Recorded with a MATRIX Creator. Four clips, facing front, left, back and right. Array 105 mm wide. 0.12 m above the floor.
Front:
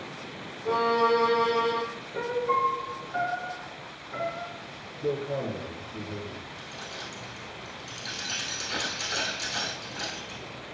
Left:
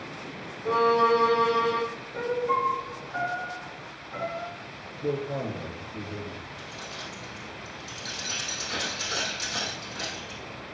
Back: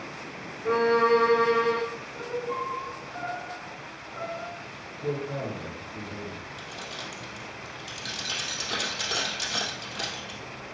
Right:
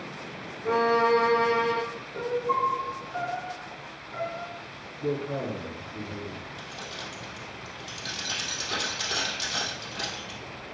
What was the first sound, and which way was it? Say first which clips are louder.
A violin: left 1 dB, back 2 dB; 160° right.